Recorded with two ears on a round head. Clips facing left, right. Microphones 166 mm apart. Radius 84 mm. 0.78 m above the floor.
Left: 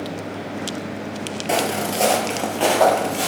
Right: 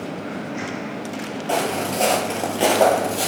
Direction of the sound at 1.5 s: 20° left (ahead or behind).